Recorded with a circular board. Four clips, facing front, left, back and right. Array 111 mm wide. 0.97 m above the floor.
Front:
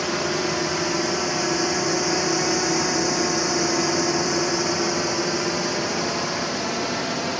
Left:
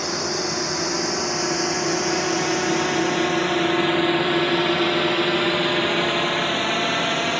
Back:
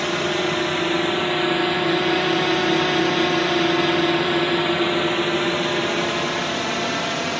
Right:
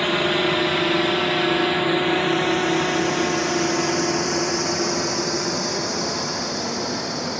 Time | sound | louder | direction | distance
0.0 | a drone | right 5 dB, back 2 dB | 115° right | ?